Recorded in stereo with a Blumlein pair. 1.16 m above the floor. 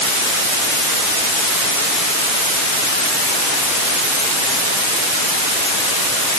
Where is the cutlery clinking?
I don't hear cutlery clinking.